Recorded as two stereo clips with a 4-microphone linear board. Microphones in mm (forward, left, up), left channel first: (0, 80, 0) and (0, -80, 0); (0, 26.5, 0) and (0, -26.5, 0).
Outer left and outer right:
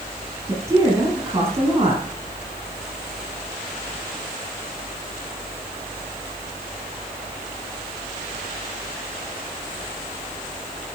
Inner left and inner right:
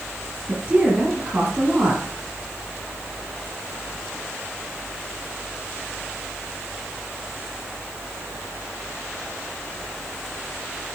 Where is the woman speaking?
20° right (ahead or behind), 4 m.